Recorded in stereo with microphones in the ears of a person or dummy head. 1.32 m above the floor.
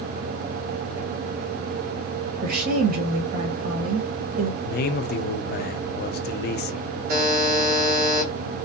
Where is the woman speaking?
55° right (ahead or behind), 1.1 m.